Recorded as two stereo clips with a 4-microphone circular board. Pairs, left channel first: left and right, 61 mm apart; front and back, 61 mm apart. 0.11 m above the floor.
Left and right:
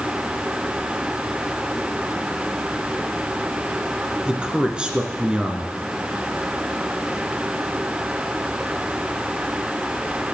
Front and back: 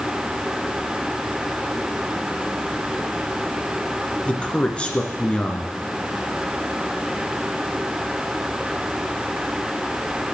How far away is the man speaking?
About 1.4 m.